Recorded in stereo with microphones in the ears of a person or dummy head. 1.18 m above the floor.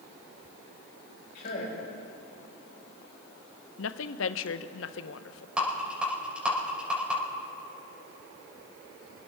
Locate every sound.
1.4 s a man speaking: 50° left (ahead or behind), 5 m
3.8 s a woman speaking: 75° left (ahead or behind), 0.7 m
5.6 s a rattle: 5° right (ahead or behind), 4.5 m